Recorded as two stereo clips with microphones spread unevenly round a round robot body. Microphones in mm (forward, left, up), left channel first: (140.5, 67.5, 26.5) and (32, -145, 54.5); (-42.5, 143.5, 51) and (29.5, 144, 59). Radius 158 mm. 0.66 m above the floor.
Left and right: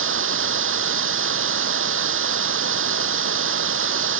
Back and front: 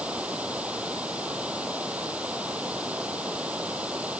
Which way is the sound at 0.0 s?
85° right.